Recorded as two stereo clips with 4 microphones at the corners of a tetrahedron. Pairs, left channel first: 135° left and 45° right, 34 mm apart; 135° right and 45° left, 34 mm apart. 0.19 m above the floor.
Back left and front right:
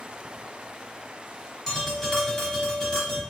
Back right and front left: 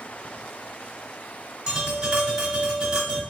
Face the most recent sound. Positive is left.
turn(degrees=80)